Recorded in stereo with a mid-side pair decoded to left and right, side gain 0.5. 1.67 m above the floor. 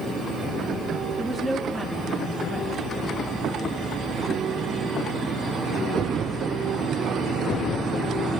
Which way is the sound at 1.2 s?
5° left.